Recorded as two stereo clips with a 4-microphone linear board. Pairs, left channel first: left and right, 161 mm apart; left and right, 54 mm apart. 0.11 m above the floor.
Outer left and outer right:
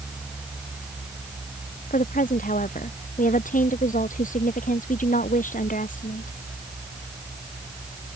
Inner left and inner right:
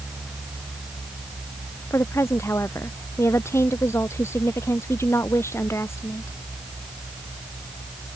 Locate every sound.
1.9 s a woman speaking: 60° left (ahead or behind)